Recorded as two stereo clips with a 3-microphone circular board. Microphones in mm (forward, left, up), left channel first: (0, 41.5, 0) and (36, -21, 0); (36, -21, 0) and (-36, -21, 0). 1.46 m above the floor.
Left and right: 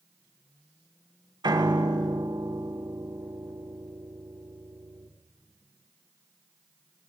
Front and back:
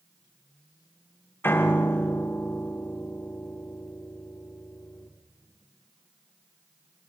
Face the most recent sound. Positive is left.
turn(degrees=-60)